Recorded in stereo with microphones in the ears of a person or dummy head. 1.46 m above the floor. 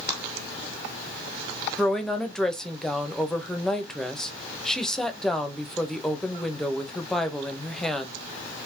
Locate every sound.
1.8 s a woman speaking: 5° left (ahead or behind), 1.1 m